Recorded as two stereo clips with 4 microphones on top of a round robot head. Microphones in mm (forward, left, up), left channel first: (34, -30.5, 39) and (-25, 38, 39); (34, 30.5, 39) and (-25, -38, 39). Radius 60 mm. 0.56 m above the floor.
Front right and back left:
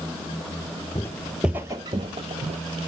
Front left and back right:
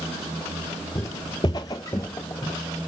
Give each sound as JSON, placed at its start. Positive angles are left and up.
{"t": 0.9, "sound": "footsteps", "azimuth_deg": 0, "distance_m": 0.6}